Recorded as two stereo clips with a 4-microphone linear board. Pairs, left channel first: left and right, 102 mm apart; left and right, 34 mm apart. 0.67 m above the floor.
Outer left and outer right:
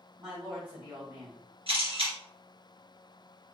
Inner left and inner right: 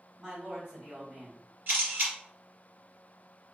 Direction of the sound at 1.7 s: 65° right (ahead or behind).